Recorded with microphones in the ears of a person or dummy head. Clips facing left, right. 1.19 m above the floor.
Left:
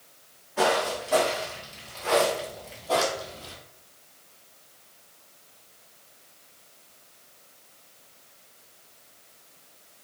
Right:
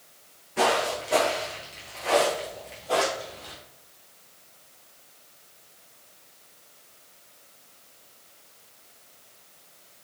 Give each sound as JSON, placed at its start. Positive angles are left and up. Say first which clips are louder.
{"t": 0.6, "sound": "footsteps", "louder": "even", "side_deg": -30, "distance_m": 1.3}